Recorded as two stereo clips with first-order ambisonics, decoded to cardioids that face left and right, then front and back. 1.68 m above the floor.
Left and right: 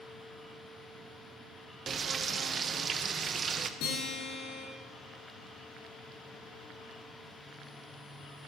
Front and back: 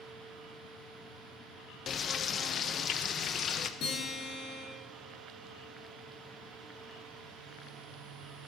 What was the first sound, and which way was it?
Frying, 40° right.